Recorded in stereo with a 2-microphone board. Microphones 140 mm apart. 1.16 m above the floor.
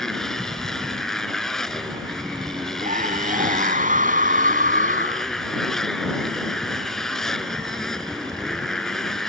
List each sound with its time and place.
0.0 s a motorcycle: 5° left (ahead or behind)
2.8 s a scream: 70° right (ahead or behind)